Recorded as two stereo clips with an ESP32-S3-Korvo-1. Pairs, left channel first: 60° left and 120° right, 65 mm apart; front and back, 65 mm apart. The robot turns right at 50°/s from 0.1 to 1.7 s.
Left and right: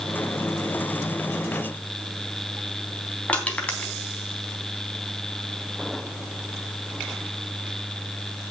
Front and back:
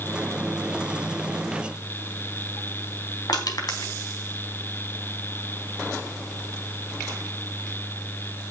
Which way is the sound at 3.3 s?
10° right.